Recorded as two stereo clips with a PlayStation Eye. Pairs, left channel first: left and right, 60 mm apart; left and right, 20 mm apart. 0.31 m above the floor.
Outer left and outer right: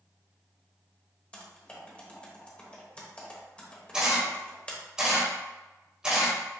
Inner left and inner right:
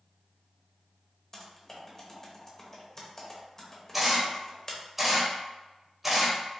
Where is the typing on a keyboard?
20° left (ahead or behind), 0.8 m.